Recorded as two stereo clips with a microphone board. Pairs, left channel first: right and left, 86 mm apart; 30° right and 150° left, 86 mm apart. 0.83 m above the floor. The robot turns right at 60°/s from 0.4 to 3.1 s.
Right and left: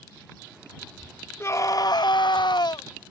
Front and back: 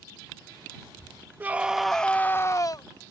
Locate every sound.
1.4 s a scream: 145° right; by 2.9 s 60° right